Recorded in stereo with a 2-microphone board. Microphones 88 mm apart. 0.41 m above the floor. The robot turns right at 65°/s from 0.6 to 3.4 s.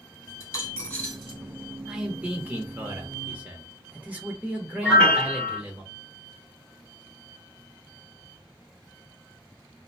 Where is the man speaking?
10° right (ahead or behind), 0.8 m; by 5.8 s 20° right (ahead or behind), 0.8 m.